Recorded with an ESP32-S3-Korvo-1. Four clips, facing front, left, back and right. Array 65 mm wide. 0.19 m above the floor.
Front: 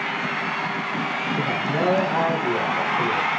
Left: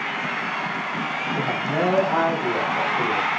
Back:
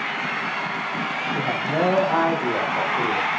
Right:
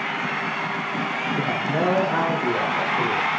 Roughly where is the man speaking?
Behind.